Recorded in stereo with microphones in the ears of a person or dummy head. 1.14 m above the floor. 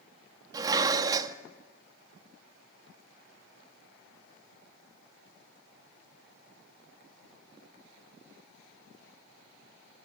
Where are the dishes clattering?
25° right (ahead or behind), 0.9 m.